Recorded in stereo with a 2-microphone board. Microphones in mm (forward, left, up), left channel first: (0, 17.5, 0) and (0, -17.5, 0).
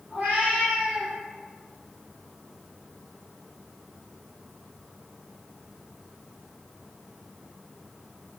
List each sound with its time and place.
0.1 s a cat meowing: 50° right (ahead or behind), 1.6 m; by 1.1 s 40° right (ahead or behind), 1.0 m